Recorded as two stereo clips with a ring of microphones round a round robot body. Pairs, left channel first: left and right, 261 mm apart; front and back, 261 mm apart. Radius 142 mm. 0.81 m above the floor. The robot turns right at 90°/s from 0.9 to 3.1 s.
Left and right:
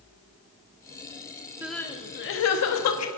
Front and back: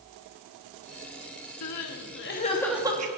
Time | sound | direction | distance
1.6 | crying | 10° right | 1.2 m